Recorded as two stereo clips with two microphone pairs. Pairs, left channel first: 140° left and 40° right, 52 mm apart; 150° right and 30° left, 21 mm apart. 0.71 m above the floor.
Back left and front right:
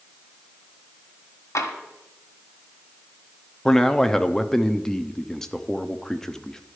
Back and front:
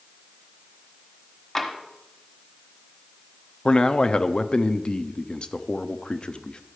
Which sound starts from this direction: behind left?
Tapping, at 1.6 s.